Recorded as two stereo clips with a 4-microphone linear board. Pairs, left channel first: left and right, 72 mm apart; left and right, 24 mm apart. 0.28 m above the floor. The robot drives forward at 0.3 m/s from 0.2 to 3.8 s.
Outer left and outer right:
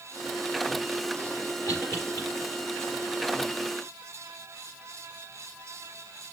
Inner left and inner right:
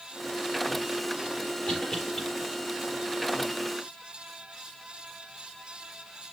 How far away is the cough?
About 6.5 m.